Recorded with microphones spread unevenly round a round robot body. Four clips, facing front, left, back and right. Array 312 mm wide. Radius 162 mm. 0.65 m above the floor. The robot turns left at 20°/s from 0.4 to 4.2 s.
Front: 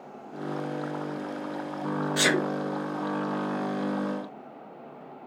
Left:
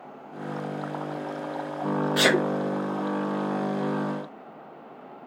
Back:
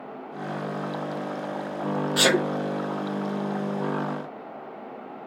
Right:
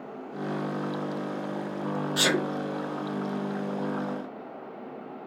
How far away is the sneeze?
About 0.8 m.